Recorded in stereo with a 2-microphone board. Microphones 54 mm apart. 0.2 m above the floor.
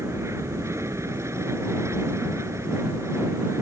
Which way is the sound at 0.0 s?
60° right (ahead or behind).